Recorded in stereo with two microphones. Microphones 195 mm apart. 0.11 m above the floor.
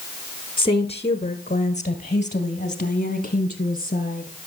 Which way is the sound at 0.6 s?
25° left (ahead or behind).